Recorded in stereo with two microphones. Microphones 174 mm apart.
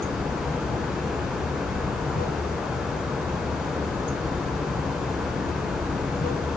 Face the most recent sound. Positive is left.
turn(degrees=65)  # may be behind; listen again after turning